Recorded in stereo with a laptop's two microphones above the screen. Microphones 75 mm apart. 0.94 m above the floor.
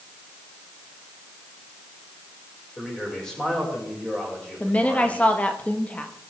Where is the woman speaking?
20° left (ahead or behind), 1.1 m.